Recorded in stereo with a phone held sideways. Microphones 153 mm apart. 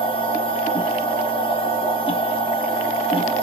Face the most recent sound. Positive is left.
turn(degrees=35)  # may be behind; listen again after turning